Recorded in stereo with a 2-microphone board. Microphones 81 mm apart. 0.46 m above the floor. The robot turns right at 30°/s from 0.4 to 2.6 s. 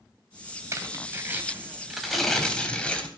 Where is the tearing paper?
45° right, 3 m; by 3.1 s 15° left, 3 m.